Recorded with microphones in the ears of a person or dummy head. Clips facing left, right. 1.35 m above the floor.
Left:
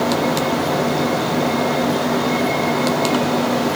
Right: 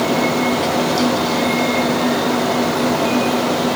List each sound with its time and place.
Only background noise.